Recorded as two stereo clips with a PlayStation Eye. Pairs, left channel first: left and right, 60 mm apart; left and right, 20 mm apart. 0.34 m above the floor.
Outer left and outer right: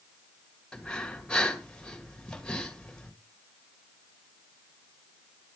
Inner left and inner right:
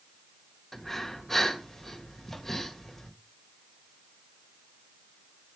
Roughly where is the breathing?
Centre.